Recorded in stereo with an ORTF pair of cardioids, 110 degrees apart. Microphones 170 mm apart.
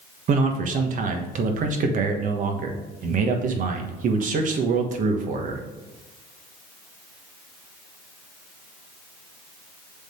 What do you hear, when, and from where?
0.3 s a man speaking: 50° right, 1.4 m